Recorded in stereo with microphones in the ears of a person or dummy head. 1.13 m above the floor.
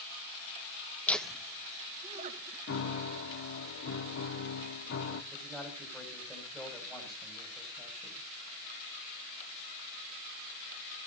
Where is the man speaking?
10° right (ahead or behind), 6.5 m.